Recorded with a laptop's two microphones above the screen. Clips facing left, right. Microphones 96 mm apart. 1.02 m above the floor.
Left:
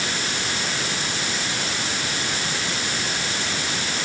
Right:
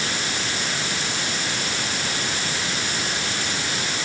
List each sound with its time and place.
Only background noise.